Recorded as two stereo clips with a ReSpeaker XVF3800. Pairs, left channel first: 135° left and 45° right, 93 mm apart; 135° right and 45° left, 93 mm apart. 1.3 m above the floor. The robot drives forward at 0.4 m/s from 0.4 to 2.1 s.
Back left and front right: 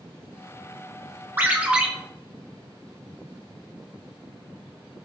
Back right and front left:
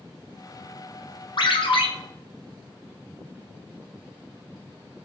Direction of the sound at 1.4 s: 110° right.